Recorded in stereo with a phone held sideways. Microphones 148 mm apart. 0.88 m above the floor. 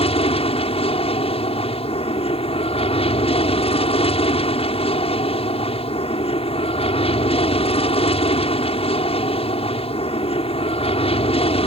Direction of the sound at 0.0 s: 40° left (ahead or behind).